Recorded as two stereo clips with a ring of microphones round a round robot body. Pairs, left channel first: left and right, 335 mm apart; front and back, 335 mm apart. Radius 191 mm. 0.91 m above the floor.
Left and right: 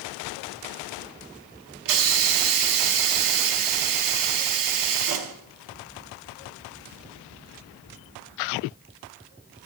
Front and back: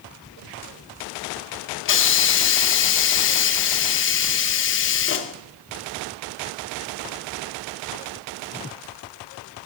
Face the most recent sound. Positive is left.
turn(degrees=-55)